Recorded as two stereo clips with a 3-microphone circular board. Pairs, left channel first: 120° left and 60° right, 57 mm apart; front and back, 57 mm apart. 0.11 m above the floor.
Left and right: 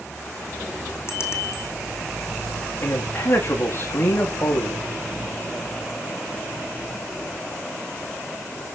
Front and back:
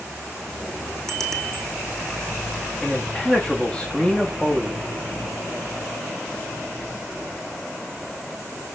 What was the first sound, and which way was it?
A bicycle bell, 80° left.